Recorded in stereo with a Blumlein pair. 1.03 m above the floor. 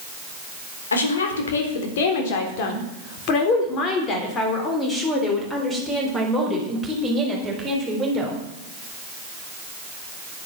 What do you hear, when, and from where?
0.9 s a woman speaking: 70° left, 4 m; by 8.3 s 10° right, 6 m